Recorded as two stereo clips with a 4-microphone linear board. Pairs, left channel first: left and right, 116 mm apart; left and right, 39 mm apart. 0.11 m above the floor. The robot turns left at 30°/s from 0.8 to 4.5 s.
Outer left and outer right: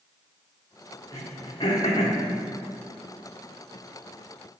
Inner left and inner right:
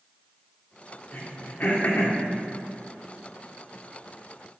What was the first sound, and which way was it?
Throat clearing, 30° left (ahead or behind).